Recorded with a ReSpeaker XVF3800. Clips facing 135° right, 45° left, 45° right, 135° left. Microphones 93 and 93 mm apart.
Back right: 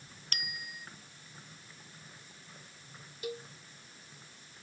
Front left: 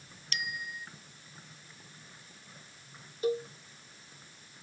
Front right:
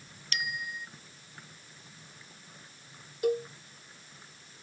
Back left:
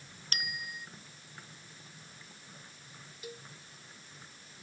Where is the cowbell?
10° right.